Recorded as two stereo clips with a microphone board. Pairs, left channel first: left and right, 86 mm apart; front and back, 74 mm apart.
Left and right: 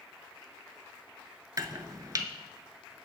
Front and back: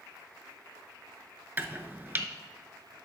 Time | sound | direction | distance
1.6 | chopping | 125° right | 0.5 m